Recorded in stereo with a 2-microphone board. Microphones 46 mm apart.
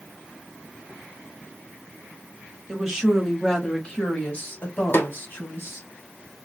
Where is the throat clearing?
No throat clearing in this recording.